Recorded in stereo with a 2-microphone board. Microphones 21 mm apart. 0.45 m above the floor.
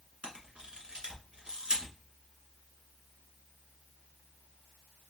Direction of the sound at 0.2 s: 50° right (ahead or behind).